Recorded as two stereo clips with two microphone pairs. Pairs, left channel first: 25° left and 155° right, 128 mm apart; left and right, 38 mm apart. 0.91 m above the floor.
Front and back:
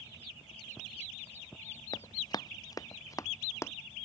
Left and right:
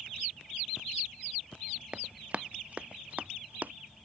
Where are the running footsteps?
30° right; by 3.7 s 45° right.